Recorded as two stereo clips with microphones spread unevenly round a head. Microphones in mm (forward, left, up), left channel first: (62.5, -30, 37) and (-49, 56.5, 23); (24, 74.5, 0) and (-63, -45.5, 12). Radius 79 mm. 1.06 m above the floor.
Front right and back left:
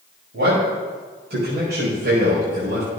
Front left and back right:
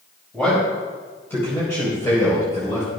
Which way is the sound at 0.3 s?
135° left.